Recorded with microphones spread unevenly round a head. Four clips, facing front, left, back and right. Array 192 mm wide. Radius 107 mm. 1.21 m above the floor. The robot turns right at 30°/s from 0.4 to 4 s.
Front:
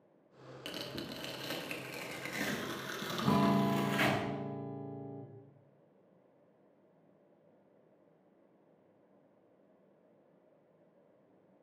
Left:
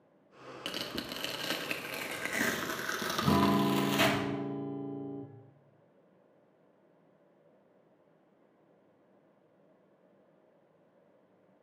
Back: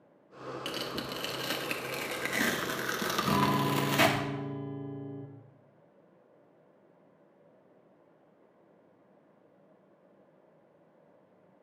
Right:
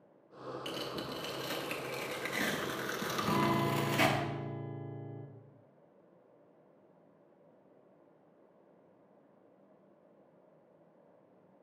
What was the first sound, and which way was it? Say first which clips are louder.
Tearing paper: left 2 dB, back 4 dB; 75° left.